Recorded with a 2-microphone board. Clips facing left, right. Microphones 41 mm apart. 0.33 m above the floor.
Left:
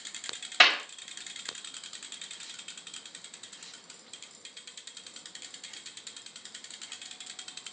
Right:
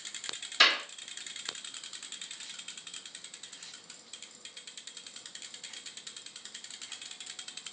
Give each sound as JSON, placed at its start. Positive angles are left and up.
{"t": 0.6, "sound": "a clap", "side_deg": 45, "distance_m": 1.3}